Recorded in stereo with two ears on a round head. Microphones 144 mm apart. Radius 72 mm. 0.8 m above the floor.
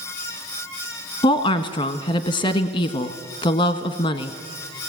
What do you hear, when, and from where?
1.2 s a woman speaking: 25° left (ahead or behind), 1.1 m